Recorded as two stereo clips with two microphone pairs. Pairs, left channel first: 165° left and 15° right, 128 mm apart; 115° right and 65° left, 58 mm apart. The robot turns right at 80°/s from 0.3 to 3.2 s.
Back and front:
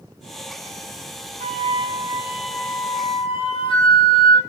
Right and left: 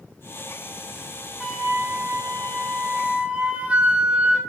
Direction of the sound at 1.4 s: 15° right.